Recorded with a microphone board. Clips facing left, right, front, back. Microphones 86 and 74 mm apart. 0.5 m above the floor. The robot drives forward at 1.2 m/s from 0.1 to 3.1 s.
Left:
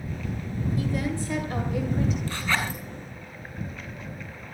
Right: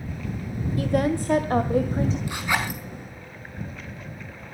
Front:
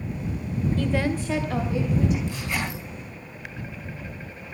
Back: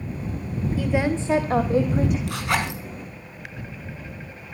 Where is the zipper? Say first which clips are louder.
Right 2 dB, back 5 dB; 165° right, 4.5 m.